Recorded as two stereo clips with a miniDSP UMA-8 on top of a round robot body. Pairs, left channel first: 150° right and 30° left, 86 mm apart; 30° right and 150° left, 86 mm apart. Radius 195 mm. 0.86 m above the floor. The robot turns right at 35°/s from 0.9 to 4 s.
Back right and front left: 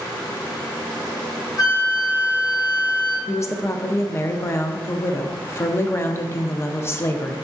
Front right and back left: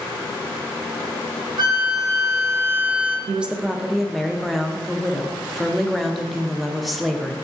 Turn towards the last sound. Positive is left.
turn(degrees=-120)